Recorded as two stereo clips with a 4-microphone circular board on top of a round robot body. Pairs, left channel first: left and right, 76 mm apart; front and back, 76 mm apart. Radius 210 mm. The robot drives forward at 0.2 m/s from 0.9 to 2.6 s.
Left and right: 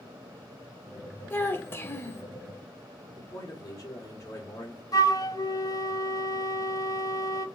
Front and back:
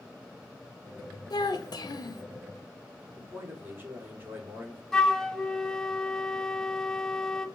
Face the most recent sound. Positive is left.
turn(degrees=85)